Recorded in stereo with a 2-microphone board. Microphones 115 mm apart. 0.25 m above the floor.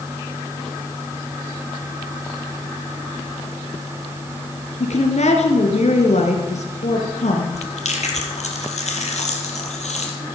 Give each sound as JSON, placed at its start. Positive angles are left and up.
{"t": 4.8, "sound": "a woman speaking", "side_deg": 75, "distance_m": 3.0}
{"t": 7.5, "sound": "chewing", "side_deg": 75, "distance_m": 3.0}